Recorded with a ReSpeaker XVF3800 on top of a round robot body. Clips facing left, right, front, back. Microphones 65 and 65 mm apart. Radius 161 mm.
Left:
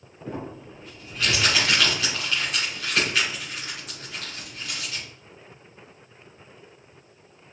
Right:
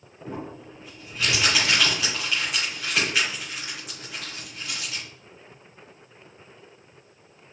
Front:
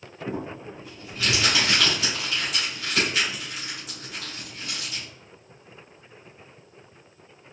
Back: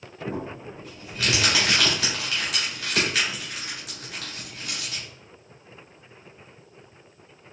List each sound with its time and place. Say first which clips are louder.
0.2 s crumpling: left 1 dB, even; 165° right, 1.7 m